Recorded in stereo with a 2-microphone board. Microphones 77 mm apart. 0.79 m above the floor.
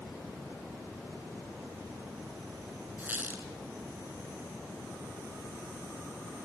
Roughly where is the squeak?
Right.